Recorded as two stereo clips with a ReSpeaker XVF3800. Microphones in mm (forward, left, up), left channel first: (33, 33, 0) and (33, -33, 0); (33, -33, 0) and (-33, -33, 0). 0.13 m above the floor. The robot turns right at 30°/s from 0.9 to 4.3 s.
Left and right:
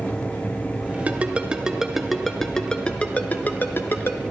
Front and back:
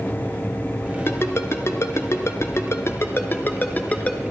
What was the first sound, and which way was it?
A ringtone, 35° right.